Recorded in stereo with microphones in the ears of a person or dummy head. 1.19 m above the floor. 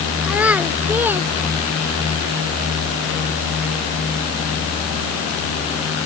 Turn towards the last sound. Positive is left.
turn(degrees=-20)  # may be behind; listen again after turning